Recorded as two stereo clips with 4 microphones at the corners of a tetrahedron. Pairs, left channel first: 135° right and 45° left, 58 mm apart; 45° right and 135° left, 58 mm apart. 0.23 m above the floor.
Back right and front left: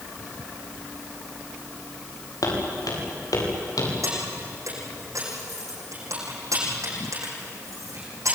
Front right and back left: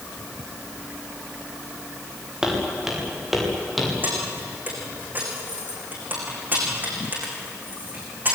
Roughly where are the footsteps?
Behind right.